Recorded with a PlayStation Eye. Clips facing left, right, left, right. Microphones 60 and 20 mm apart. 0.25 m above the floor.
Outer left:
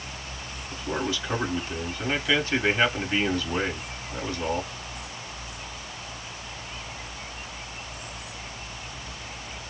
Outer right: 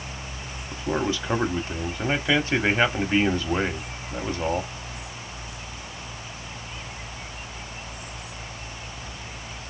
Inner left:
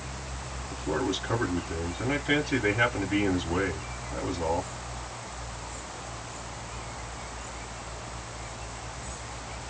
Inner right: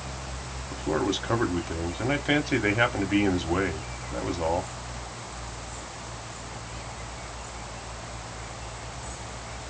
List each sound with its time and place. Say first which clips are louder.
0.7 s a man speaking: outer right 3 dB, inner right 3 dB; 30° right (ahead or behind), 1.5 m